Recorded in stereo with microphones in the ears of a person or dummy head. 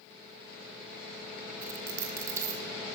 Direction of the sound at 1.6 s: 15° right (ahead or behind).